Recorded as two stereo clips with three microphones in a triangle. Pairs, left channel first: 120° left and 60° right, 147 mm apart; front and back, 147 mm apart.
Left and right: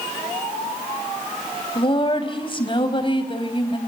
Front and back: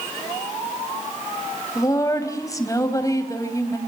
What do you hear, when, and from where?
1.8 s a woman speaking: 65° left, 3 m